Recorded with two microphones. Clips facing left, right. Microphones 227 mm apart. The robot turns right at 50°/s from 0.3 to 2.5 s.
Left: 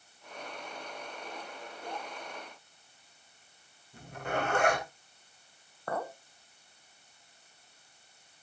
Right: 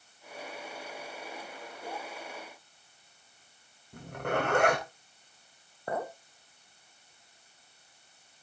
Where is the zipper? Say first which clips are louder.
Right 3 dB; 70° right (ahead or behind), 3.5 m.